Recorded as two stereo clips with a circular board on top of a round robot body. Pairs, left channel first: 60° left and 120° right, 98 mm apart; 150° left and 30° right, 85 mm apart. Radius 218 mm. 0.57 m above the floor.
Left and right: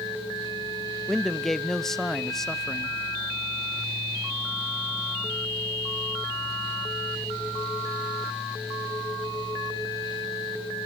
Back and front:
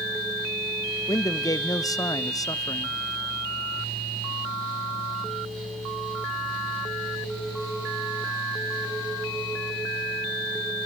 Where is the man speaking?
145° left, 0.8 m.